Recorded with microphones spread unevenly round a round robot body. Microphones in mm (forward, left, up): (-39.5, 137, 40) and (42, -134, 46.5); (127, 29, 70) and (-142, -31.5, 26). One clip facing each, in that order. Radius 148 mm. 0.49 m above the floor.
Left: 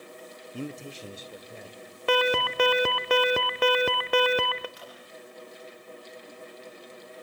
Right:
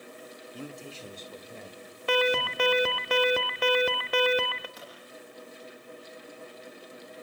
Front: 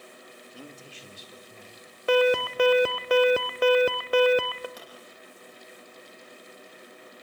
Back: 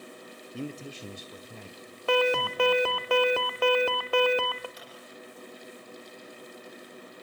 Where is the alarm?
90° left, 0.8 m.